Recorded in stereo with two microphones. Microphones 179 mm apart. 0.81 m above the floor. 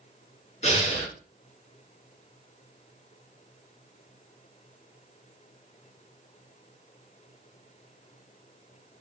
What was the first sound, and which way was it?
Breathing, 40° left (ahead or behind).